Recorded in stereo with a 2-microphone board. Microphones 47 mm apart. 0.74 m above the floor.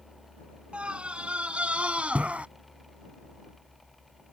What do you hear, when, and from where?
0.7 s a scream: 25° right (ahead or behind); by 2.5 s 30° right (ahead or behind)